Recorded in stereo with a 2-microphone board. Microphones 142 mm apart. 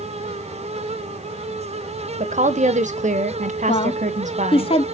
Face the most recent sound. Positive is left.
turn(degrees=40)  # may be behind; listen again after turning